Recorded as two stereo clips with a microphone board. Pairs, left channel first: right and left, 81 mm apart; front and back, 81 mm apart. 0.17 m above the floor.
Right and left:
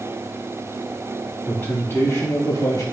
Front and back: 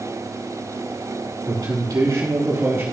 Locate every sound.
1.5 s a man speaking: 155° right, 3.5 m; by 2.8 s 125° right, 3 m